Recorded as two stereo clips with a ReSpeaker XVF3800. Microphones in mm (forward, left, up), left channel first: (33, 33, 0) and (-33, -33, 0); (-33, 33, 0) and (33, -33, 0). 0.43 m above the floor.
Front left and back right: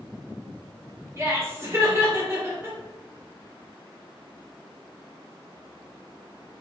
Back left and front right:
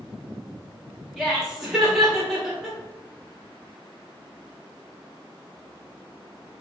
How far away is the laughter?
About 1.3 m.